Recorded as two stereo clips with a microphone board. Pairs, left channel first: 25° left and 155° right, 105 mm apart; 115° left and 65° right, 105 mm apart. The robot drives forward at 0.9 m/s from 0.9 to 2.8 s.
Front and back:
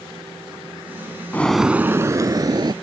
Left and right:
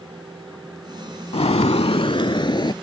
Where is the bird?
95° left; by 2.7 s 155° left.